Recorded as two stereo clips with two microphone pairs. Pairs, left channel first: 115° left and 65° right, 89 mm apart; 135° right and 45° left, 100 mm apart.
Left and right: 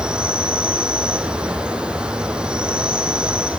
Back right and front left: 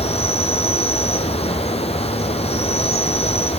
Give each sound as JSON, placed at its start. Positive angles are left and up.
{"t": 0.0, "sound": "an insect", "azimuth_deg": -140, "distance_m": 1.1}